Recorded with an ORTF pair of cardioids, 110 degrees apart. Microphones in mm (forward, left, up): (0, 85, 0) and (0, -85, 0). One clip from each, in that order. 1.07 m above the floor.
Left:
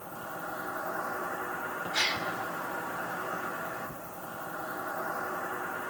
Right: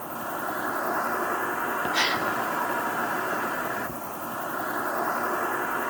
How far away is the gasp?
About 2.5 m.